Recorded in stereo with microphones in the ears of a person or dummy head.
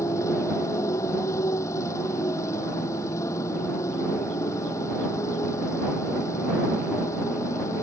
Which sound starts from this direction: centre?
A motorcycle, at 0.0 s.